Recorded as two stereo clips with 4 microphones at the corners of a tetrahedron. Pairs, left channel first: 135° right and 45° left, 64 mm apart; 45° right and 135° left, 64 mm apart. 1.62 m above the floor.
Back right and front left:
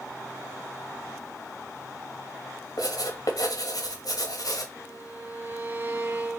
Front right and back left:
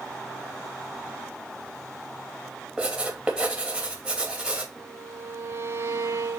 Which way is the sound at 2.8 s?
150° right.